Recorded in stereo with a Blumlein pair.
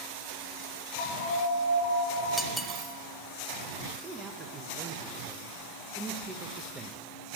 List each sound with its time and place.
1.0 s an alarm: 60° left, 5 m
2.4 s cutlery clinking: straight ahead, 0.7 m
4.0 s a man speaking: 15° right, 0.9 m